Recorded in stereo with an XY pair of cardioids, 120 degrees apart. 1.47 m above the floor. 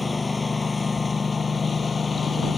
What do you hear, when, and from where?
0.0 s a lawn mower: 20° left; by 2.6 s 30° left